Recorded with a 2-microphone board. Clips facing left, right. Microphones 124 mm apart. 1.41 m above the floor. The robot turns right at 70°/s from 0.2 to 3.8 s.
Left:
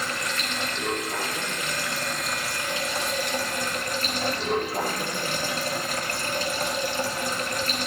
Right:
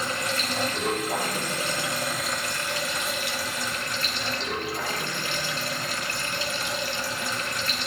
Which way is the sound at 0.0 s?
145° right.